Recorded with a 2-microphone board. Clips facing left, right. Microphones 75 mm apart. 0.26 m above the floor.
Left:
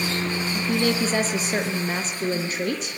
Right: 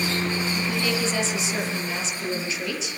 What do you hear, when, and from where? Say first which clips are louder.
0.5 s a woman speaking: left 3 dB; 45° left (ahead or behind), 5.5 m